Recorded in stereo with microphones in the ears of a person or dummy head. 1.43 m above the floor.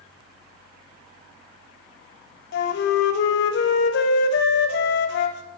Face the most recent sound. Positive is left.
turn(degrees=60)  # may be behind; listen again after turning